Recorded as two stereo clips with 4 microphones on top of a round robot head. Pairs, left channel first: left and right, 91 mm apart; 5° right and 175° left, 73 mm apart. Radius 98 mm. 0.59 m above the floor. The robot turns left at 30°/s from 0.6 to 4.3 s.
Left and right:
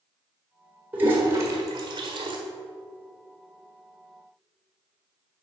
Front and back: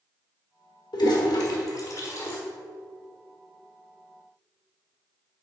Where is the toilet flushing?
20° right, 1.4 m; by 2.4 s 60° right, 1.4 m.